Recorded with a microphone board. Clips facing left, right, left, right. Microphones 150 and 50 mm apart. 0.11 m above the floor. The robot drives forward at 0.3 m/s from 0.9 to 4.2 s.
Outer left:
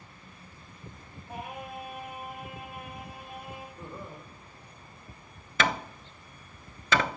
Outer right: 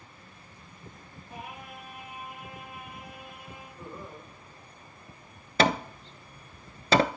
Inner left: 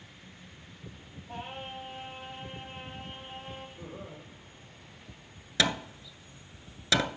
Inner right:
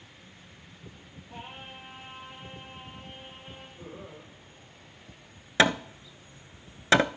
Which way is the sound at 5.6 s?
35° right (ahead or behind).